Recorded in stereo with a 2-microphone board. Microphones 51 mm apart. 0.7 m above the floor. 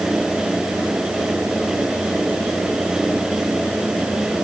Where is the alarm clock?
I don't hear an alarm clock.